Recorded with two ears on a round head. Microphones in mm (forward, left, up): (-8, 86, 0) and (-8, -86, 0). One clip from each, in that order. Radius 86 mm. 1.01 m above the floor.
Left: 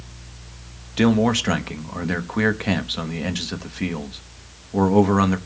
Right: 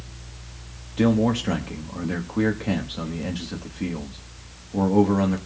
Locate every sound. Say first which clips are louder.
1.0 s a man speaking: left 3 dB; 55° left (ahead or behind), 1.1 m